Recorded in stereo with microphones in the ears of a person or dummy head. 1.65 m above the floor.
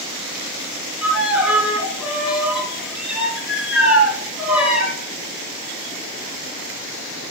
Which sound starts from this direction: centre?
A violin, at 1.0 s.